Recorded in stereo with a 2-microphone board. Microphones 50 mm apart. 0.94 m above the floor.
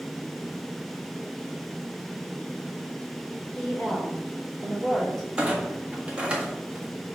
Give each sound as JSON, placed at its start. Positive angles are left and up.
{"t": 3.5, "sound": "a woman speaking", "side_deg": 5, "distance_m": 3.5}
{"t": 5.4, "sound": "a clunk", "side_deg": -25, "distance_m": 1.7}